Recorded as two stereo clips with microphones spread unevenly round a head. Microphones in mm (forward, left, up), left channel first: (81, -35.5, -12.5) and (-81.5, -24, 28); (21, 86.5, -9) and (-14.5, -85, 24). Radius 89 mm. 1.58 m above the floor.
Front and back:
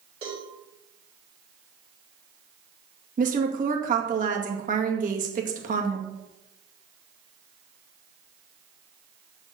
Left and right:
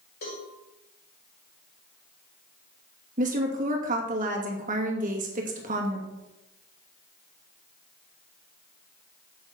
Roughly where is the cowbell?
Behind left.